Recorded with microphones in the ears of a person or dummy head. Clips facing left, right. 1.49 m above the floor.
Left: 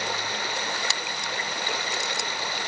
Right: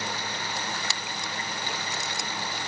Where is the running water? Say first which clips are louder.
Left 3 dB; 70° left (ahead or behind).